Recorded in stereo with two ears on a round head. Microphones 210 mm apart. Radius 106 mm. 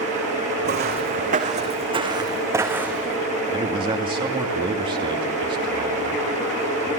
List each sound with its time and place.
0.7 s footsteps: 50° right (ahead or behind), 4 m; by 3.2 s centre (ahead or behind), 4 m
3.5 s a man speaking: 25° right (ahead or behind), 2.5 m